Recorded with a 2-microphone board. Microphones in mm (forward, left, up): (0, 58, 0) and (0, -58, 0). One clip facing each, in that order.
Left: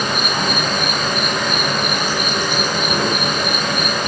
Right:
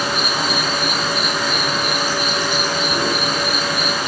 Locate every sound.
0.0 s an insect: 65° left (ahead or behind), 4.5 m